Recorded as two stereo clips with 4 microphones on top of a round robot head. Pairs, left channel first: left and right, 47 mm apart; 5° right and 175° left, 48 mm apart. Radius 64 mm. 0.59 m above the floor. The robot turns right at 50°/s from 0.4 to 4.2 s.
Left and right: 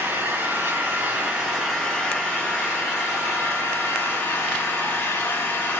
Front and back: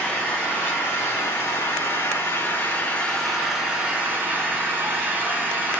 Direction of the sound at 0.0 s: 65° right.